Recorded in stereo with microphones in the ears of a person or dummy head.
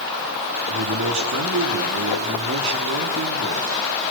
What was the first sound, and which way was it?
A man speaking, 70° right (ahead or behind).